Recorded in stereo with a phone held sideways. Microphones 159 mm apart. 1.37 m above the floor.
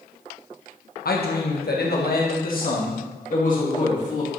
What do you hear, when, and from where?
1.1 s a man speaking: 70° left (ahead or behind), 1.0 m; by 4.3 s 50° left (ahead or behind), 3 m